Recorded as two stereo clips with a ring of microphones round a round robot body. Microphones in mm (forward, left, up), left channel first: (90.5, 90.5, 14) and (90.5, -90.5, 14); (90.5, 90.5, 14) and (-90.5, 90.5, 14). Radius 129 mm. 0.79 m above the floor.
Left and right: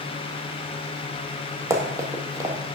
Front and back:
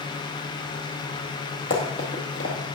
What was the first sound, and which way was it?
Running footsteps, 20° right.